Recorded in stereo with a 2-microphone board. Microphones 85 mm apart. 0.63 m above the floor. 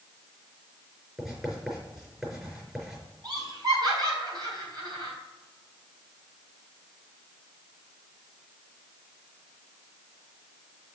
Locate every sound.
1.2 s writing: 5° right (ahead or behind), 4 m
3.2 s laughter: 55° right (ahead or behind), 4 m